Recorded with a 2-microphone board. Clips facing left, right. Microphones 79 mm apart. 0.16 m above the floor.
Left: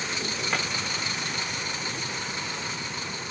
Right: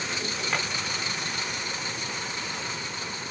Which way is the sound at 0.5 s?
5° left (ahead or behind).